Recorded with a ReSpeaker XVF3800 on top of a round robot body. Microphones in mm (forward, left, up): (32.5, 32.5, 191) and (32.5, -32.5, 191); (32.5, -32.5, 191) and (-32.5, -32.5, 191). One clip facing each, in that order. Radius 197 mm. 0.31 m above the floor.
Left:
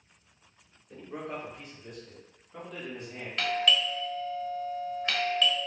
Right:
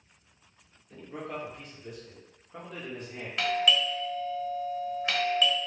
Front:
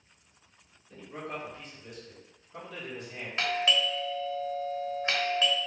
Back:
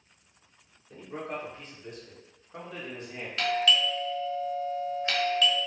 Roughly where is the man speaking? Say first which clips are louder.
Even, back 2 dB; behind left.